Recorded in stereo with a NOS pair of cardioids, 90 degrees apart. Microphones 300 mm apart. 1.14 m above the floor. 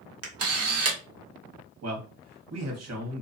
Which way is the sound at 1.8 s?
60° right.